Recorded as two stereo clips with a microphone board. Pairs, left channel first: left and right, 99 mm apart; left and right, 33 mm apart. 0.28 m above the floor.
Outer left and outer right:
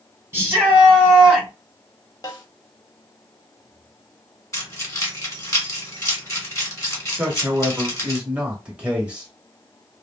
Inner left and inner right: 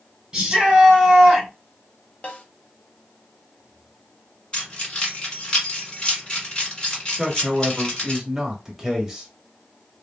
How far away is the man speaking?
About 0.9 m.